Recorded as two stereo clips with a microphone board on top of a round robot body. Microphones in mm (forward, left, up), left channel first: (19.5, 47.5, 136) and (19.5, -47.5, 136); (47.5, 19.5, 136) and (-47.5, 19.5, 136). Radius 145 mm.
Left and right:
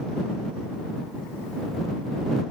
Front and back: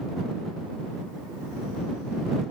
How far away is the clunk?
I don't hear a clunk.